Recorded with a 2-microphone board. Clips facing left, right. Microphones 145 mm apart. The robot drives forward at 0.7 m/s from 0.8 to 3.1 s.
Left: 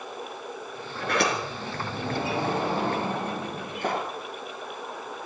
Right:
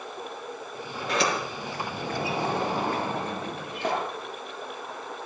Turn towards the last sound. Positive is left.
turn(degrees=50)  # may be behind; listen again after turning